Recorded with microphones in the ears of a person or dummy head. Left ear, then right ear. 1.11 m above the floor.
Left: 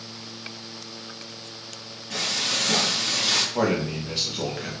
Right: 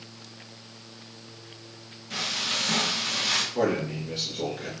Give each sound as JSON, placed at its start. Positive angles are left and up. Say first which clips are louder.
{"t": 2.1, "sound": "frying", "louder": "left 3 dB", "side_deg": -5, "distance_m": 1.7}
{"t": 3.5, "sound": "a man speaking", "louder": "left 2 dB", "side_deg": 30, "distance_m": 0.9}